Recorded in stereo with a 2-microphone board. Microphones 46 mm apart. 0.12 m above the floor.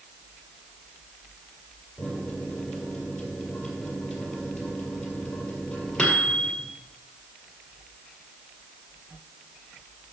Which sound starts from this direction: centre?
A microwave, at 2.0 s.